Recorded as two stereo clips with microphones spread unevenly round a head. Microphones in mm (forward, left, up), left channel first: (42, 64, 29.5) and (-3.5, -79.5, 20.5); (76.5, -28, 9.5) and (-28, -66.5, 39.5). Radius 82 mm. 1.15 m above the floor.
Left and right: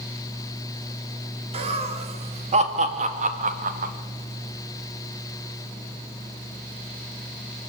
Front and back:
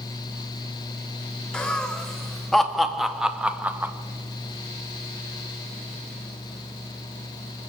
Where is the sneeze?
No sneeze in this recording.